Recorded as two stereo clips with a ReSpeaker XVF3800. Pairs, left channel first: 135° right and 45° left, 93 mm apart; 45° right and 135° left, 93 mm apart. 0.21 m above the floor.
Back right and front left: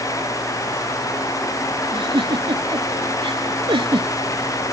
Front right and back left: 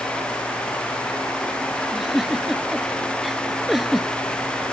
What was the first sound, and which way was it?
A giggle, 45° left.